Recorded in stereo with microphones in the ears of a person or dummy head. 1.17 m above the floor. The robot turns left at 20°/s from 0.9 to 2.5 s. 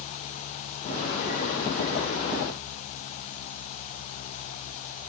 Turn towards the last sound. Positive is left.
No sound to turn to.